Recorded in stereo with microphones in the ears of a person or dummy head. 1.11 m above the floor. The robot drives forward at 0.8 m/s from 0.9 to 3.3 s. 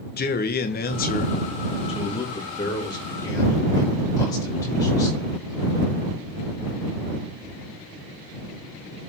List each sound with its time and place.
0.2 s a man speaking: 45° left (ahead or behind), 1.1 m; by 5.4 s 15° left (ahead or behind), 2.5 m